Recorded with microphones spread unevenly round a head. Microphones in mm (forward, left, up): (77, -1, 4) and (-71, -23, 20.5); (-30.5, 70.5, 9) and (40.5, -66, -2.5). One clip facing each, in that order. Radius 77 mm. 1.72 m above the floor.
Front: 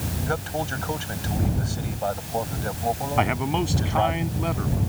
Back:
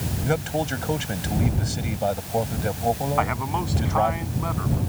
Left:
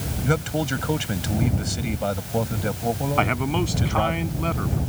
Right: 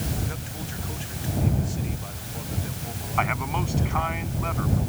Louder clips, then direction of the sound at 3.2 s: Front 2 dB, left 4 dB; 70° left.